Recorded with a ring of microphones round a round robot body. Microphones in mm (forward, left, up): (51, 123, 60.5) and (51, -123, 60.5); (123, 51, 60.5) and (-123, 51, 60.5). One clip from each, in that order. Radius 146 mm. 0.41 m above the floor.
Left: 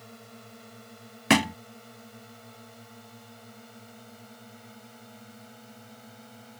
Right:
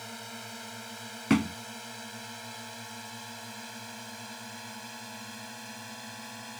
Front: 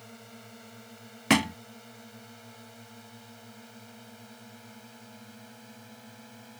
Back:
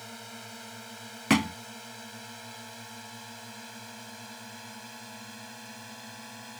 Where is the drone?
120° right; by 6.6 s 125° right.